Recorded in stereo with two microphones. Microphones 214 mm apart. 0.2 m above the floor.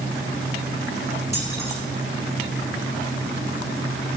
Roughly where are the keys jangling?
Left.